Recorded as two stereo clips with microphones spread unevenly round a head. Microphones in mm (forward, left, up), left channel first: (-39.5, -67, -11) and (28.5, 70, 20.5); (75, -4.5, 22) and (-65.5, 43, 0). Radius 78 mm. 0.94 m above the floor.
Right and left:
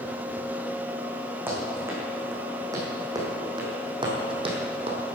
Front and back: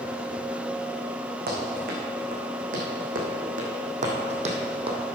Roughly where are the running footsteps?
Behind left.